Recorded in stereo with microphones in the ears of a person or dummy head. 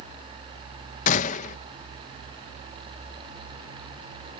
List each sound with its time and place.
1.1 s a gunshot: 35° left (ahead or behind)